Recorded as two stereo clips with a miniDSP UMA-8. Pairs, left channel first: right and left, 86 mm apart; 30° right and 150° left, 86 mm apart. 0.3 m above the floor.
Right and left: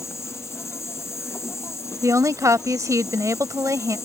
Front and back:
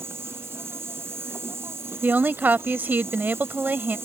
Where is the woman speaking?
95° left.